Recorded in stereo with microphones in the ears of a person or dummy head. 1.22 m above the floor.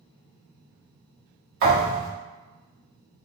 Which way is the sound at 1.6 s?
50° right (ahead or behind).